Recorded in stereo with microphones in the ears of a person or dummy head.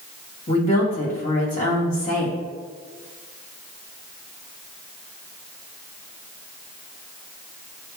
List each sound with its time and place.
0.5 s a woman speaking: 35° left (ahead or behind), 3 m